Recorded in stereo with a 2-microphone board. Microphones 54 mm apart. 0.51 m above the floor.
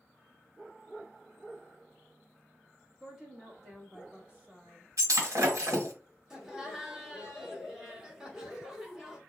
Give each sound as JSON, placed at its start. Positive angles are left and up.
{"t": 3.0, "sound": "a woman speaking", "side_deg": -5, "distance_m": 1.3}
{"t": 5.0, "sound": "breaking glass", "side_deg": -70, "distance_m": 1.1}
{"t": 6.3, "sound": "laughter", "side_deg": -10, "distance_m": 1.0}